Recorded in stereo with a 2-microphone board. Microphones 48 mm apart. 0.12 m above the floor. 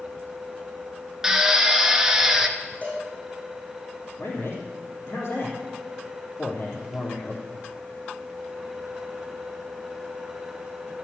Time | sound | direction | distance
1.2 | a drill | 15° right (ahead or behind) | 1.1 m
2.8 | a cowbell | 35° left (ahead or behind) | 7 m
4.2 | a man speaking | 55° left (ahead or behind) | 3 m